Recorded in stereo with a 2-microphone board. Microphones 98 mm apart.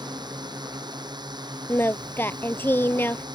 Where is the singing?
20° left (ahead or behind).